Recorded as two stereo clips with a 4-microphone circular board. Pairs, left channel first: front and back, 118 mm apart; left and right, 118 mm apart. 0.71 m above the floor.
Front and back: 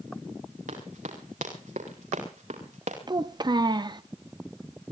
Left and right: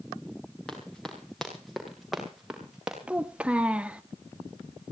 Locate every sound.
0.7 s running footsteps: 175° left, 7 m; by 3.0 s 170° right, 6.5 m
3.1 s a child speaking: 165° right, 0.7 m